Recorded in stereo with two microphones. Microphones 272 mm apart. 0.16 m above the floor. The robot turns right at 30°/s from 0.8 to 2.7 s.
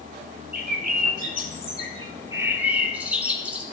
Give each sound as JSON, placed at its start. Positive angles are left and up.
{"t": 0.5, "sound": "a bird", "azimuth_deg": -65, "distance_m": 0.9}